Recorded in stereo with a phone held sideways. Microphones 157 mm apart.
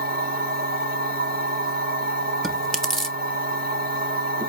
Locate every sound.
0.0 s a machine running: 80° right, 1.1 m
2.4 s chewing: 5° left (ahead or behind), 0.6 m